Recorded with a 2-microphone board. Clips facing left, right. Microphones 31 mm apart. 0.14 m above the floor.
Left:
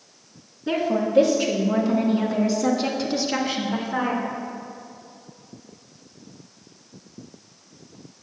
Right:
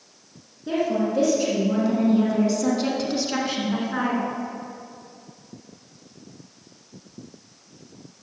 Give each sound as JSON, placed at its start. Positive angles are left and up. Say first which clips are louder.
{"t": 0.7, "sound": "a woman speaking", "louder": "even", "side_deg": 25, "distance_m": 1.5}